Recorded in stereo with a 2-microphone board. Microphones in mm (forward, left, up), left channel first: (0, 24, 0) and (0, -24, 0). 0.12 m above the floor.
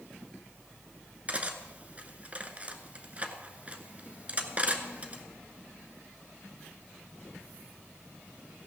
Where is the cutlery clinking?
30° right (ahead or behind), 1.0 m.